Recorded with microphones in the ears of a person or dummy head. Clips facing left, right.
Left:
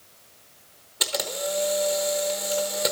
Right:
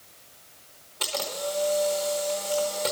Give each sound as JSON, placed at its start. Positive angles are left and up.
{"t": 1.0, "sound": "a camera shutter", "side_deg": 15, "distance_m": 1.0}